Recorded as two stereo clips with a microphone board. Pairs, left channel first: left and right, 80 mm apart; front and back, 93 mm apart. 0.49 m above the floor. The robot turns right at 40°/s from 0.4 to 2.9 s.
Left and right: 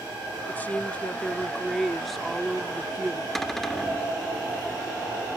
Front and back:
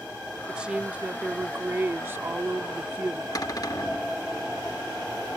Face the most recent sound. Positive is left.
turn(degrees=5)